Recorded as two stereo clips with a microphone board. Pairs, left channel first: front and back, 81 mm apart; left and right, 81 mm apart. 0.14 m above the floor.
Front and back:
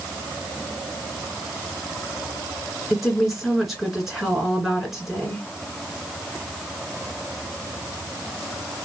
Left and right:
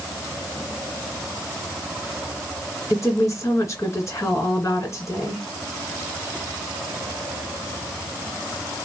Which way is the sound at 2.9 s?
95° left.